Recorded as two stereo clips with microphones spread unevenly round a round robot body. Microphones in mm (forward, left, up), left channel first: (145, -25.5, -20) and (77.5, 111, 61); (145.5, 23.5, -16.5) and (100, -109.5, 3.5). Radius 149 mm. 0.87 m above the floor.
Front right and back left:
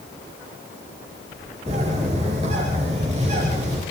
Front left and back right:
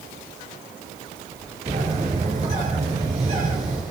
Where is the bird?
175° right, 5.5 m.